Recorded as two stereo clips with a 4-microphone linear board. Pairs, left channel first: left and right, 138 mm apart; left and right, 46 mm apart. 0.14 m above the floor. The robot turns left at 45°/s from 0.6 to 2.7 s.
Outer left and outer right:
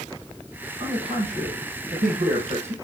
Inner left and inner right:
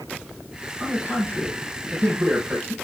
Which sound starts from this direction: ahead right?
A man speaking, at 0.8 s.